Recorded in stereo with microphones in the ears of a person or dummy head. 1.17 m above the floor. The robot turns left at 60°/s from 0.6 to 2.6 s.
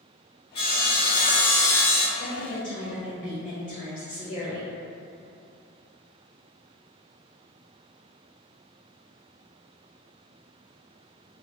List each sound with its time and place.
0.6 s sawing: 150° left, 0.8 m; by 2.1 s 65° left, 0.8 m
2.2 s a woman speaking: 15° left (ahead or behind), 1.4 m; by 4.7 s 40° left (ahead or behind), 1.4 m